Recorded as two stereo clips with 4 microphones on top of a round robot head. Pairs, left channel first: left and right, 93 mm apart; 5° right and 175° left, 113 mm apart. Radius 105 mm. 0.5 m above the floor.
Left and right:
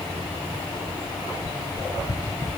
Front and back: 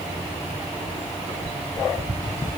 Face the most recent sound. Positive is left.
No sound to turn to.